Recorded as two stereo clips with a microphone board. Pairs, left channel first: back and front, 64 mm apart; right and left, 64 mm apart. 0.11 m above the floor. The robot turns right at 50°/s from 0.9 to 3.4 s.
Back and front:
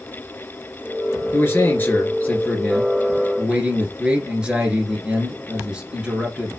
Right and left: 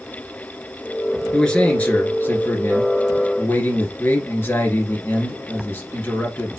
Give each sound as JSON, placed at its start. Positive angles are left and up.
{"t": 1.3, "sound": "a man speaking", "azimuth_deg": -170, "distance_m": 1.9}